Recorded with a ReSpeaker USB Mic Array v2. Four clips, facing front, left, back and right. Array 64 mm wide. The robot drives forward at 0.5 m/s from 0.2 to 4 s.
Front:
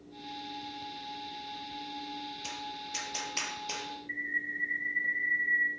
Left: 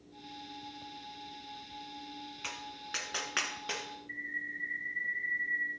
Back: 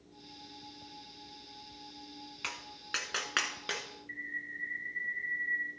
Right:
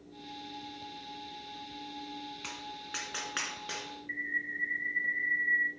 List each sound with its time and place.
2.4 s tapping: 175° left, 1.3 m
4.1 s a bird: 80° right, 1.5 m